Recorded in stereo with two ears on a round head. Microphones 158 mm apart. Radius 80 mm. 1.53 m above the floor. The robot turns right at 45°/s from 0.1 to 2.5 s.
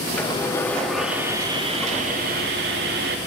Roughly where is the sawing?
Behind left.